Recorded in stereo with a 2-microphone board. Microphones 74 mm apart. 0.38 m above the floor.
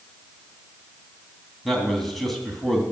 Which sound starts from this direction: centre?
A man speaking, at 1.6 s.